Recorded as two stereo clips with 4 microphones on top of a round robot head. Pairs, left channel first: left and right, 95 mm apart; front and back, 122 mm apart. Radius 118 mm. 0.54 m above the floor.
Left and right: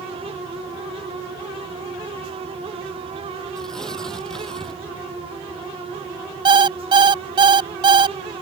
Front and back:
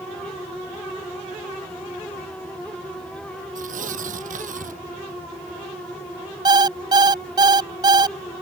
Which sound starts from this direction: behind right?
An alarm clock, at 6.5 s.